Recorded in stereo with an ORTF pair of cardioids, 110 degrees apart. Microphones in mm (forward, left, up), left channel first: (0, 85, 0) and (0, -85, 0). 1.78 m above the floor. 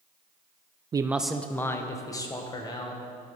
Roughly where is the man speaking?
Ahead right.